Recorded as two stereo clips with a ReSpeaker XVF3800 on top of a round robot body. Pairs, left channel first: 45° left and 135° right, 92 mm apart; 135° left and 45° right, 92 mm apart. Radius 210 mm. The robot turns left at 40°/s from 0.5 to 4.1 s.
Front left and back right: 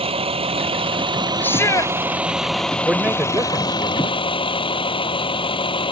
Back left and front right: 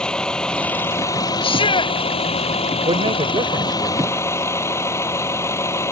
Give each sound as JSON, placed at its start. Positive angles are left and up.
{"t": 0.0, "sound": "a vehicle", "azimuth_deg": -145}
{"t": 1.4, "sound": "a shout", "azimuth_deg": 115}
{"t": 2.9, "sound": "a man speaking", "azimuth_deg": -50}